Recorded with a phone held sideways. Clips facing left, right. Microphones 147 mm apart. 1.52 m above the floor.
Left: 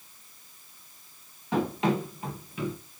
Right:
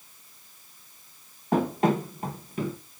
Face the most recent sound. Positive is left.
turn(degrees=-40)  # may be behind; listen again after turning